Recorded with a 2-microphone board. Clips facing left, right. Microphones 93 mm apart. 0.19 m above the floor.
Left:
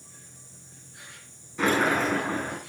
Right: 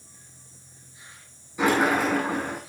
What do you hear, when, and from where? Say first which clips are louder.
0.0 s an insect: left 2 dB; 65° left (ahead or behind), 5 m
1.6 s a sliding door: right 2 dB; 10° right (ahead or behind), 9.5 m